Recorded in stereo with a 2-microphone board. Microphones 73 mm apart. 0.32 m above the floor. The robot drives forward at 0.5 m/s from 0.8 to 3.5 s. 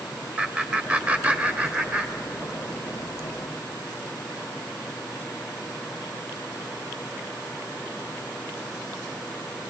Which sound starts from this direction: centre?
Laughter, at 0.4 s.